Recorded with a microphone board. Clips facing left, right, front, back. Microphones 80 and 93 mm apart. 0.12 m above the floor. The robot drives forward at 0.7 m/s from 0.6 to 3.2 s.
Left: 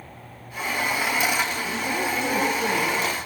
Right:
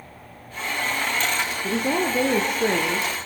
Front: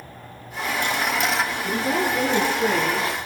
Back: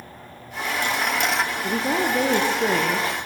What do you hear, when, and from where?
1.6 s a woman speaking: 110° right, 4.5 m; by 3.2 s 125° right, 5 m